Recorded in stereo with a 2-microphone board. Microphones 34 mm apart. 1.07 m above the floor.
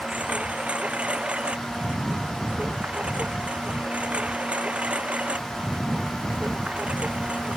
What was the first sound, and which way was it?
A lawn mower, 35° right (ahead or behind).